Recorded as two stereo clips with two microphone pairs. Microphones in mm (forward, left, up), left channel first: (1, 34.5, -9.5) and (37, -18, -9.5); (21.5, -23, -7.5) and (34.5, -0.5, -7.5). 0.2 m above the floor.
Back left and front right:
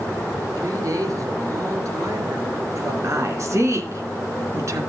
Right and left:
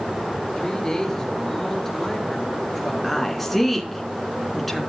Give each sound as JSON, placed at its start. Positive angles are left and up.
{"t": 0.6, "sound": "a woman speaking", "azimuth_deg": -55, "distance_m": 3.5}
{"t": 3.0, "sound": "a woman speaking", "azimuth_deg": -35, "distance_m": 2.5}